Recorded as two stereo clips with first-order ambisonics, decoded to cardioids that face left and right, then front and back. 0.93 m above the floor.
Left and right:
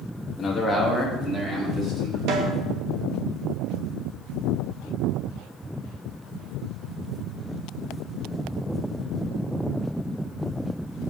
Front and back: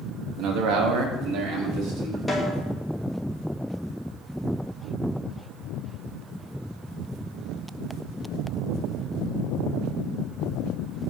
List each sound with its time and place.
0.4 s a man speaking: 160° left, 1.1 m; by 2.2 s 150° right, 3.5 m
2.3 s a snare drum: 90° right, 1.6 m